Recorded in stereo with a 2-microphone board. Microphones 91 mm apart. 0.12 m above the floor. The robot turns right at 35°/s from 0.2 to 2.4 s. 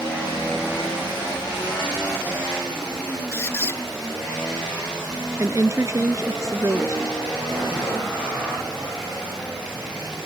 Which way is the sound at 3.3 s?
30° left (ahead or behind).